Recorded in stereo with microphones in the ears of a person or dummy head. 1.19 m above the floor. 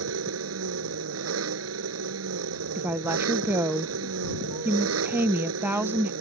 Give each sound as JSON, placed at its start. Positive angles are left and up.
{"t": 0.0, "sound": "an engine running", "side_deg": -80}
{"t": 2.8, "sound": "a woman speaking", "side_deg": -15}